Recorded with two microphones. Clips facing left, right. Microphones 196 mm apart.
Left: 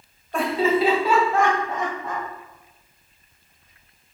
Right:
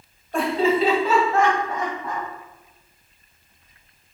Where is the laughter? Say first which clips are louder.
Right 1 dB; centre (ahead or behind), 1.9 m; by 2.3 s 25° left (ahead or behind), 2.5 m.